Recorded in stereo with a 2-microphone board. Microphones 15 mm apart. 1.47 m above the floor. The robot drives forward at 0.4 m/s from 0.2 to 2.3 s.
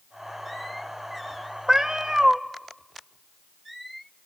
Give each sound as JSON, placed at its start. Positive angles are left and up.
{"t": 1.7, "sound": "a cat meowing", "side_deg": -40, "distance_m": 0.9}